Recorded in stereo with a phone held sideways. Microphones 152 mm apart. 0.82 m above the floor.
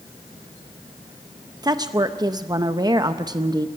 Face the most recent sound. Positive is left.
turn(degrees=-25)  # may be behind; listen again after turning